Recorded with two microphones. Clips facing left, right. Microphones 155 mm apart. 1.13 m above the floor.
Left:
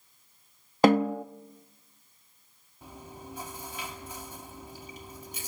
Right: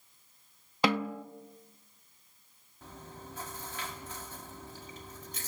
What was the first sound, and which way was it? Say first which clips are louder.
A snare drum: left 8 dB; 45° left (ahead or behind).